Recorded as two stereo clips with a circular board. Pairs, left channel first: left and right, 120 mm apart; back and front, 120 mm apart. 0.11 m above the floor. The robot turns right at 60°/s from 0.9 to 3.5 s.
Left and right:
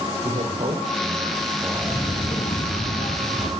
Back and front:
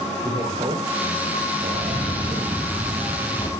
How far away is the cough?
About 3.5 m.